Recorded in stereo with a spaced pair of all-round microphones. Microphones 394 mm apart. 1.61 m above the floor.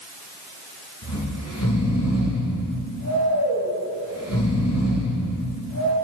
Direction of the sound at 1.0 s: 40° left (ahead or behind).